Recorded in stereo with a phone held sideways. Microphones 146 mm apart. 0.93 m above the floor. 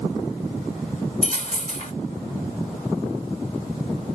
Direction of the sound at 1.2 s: 55° left (ahead or behind).